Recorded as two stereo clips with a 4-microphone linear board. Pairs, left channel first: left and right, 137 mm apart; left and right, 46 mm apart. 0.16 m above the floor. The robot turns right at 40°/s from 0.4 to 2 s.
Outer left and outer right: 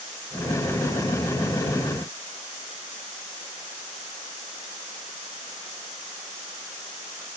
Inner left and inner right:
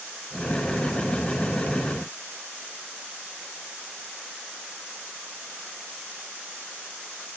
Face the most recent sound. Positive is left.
No sound to turn to.